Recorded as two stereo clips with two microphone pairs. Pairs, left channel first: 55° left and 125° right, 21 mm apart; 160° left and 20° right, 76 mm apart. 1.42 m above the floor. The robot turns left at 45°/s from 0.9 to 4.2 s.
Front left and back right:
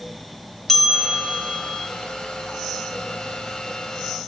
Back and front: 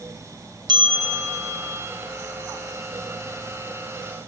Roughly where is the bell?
Ahead right.